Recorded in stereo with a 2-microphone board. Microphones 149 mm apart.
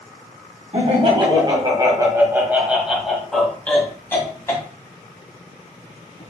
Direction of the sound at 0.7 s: 45° right (ahead or behind).